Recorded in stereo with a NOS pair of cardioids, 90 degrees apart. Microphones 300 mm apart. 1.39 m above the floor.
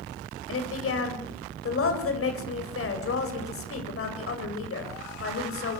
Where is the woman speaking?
50° left, 8 m.